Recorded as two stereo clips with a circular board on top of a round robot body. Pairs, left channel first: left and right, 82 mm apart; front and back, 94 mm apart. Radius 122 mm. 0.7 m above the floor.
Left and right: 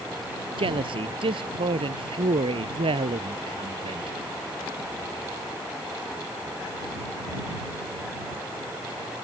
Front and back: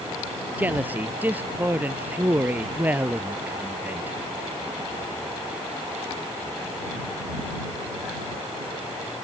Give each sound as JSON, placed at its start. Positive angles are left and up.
{"t": 0.6, "sound": "a man speaking", "azimuth_deg": -105}